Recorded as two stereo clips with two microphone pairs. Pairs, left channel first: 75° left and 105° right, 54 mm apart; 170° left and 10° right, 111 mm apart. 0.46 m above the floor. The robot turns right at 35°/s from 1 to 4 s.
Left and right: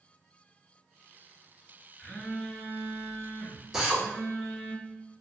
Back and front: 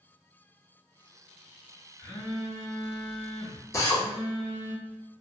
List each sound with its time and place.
2.0 s a phone buzzing: 110° left, 0.8 m; by 4.7 s straight behind, 0.8 m
3.7 s a drill: straight behind, 0.6 m; by 4.0 s 175° right, 0.6 m